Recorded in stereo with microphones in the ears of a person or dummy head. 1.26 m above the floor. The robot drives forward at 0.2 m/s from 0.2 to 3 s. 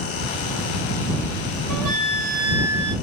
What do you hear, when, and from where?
1.7 s a flute: 50° right (ahead or behind), 1.8 m; by 3.0 s 60° right (ahead or behind), 1.6 m